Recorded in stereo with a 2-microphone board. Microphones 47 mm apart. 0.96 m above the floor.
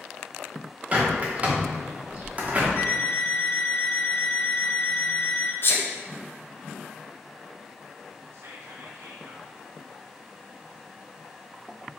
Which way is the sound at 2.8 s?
55° left (ahead or behind).